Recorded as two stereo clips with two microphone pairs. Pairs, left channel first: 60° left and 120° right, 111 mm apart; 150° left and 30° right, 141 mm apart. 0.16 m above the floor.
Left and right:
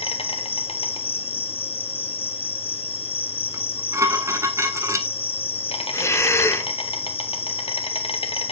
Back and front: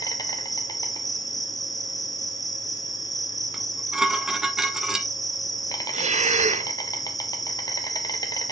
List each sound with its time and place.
0.0 s an insect: 85° left, 1.2 m
3.5 s dishes clattering: 105° right, 1.0 m
5.9 s breathing: straight ahead, 0.7 m